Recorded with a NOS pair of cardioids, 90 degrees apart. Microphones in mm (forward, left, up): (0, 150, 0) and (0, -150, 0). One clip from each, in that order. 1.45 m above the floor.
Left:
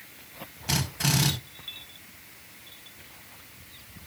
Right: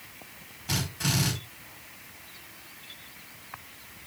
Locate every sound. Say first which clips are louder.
0.7 s a drill: left 2 dB; 40° left, 5.5 m